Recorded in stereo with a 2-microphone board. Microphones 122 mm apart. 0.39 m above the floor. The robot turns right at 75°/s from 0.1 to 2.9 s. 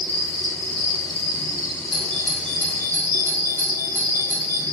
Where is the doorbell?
50° right (ahead or behind), 1.7 m; by 4.6 s 20° right (ahead or behind), 1.7 m.